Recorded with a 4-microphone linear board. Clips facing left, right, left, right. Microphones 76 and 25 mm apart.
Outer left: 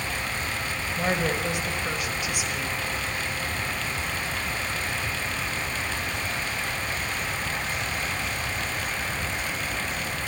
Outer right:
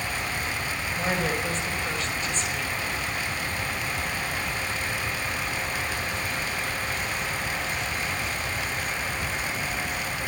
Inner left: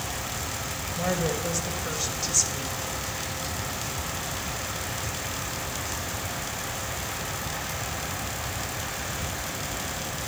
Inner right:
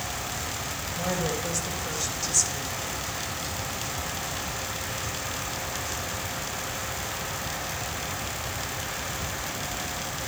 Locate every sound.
1.0 s a woman speaking: 10° left (ahead or behind), 5.5 m